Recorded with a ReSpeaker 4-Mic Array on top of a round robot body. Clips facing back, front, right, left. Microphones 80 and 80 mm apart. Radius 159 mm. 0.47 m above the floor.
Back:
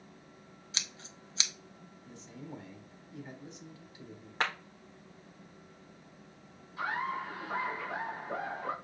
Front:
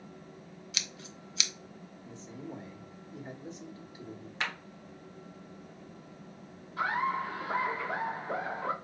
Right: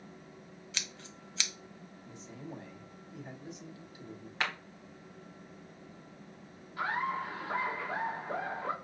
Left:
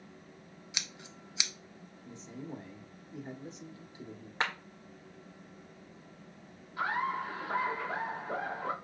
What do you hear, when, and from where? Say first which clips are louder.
0.7 s scissors: even, even; 150° left, 0.9 m
2.0 s a man speaking: front 3 dB, left 3 dB; 45° left, 1.8 m
4.4 s a clap: back 3 dB, left 2 dB; 145° left, 1.1 m
6.8 s laughter: front 4 dB, left 1 dB; 20° left, 2 m